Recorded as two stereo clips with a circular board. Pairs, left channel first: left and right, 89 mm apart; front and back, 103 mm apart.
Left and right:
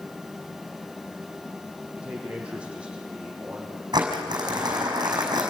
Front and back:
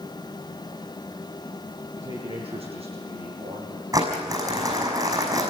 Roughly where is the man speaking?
Behind.